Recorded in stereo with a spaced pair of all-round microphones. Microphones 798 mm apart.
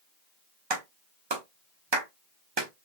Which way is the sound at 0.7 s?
35° right (ahead or behind).